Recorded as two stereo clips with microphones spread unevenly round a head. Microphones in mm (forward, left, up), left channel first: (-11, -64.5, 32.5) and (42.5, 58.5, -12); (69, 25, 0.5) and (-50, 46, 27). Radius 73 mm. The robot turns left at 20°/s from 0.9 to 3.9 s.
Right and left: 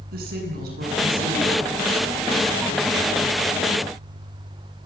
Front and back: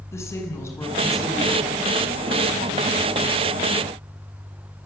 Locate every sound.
0.1 s a woman speaking: 60° left, 8.5 m; by 1.7 s 40° left, 8.5 m